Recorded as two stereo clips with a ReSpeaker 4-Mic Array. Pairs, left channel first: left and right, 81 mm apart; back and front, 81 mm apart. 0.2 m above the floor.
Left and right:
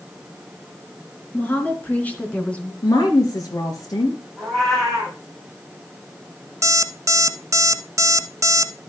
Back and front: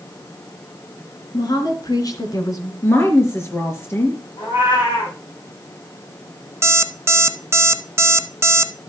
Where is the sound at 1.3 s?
155° left, 3.5 m; by 2.7 s 160° left, 2 m.